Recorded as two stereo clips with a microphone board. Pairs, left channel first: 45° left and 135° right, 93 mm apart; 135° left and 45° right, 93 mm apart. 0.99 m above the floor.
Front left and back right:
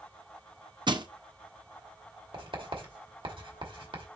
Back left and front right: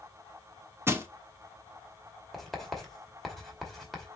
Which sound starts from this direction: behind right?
Writing, at 2.3 s.